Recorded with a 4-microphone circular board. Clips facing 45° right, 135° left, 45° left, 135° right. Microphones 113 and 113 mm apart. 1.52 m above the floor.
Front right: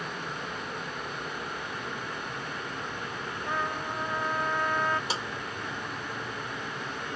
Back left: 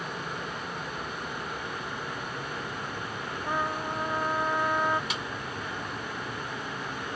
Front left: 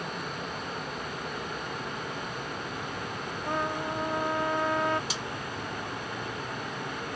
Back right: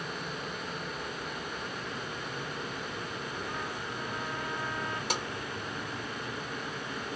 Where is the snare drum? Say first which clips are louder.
Front right 2 dB, back right 2 dB; 100° right.